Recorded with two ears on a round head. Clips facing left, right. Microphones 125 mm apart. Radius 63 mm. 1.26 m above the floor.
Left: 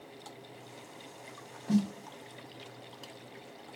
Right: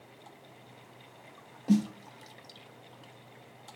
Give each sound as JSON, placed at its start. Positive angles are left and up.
{"t": 1.7, "sound": "a snare drum", "side_deg": -25, "distance_m": 3.5}